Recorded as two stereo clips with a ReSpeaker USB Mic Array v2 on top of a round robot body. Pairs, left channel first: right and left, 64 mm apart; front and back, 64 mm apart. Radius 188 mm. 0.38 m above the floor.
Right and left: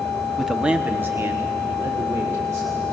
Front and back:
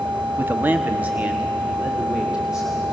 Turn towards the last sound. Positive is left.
turn(degrees=100)